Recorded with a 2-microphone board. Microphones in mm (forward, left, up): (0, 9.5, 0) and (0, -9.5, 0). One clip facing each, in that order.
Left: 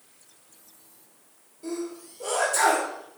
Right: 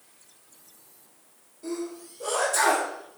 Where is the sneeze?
5° left (ahead or behind), 2 m.